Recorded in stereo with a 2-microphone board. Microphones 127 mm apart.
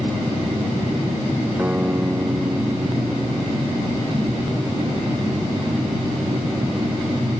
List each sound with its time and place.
1.6 s a guitar: 10° right (ahead or behind)